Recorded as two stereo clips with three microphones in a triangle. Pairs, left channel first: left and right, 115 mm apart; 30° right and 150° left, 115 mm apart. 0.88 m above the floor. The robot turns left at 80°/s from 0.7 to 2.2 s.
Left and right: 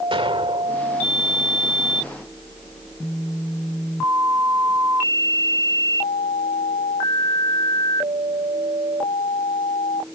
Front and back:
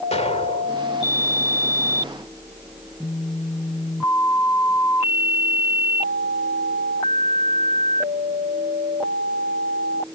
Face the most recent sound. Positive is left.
turn(degrees=-170)